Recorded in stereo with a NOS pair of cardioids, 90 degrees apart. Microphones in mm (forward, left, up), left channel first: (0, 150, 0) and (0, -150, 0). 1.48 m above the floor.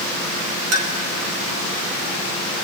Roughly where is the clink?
Ahead right.